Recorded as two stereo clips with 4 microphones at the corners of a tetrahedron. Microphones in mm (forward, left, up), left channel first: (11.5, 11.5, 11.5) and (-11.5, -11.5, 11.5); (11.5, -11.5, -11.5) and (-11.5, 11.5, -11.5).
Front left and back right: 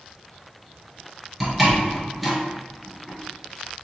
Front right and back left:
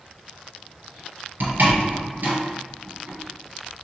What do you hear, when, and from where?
1.4 s a door slam: 130° left, 1.9 m